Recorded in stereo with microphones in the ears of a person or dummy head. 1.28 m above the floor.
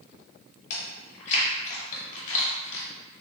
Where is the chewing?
45° left (ahead or behind), 1.2 m.